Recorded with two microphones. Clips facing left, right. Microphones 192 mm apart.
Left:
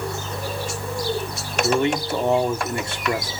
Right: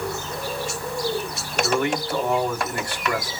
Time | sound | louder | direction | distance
1.6 | a man speaking | left 3 dB | 25° left (ahead or behind) | 1.7 m